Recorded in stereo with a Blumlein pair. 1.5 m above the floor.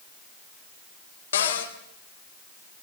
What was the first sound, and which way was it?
A cupboard door, 65° left.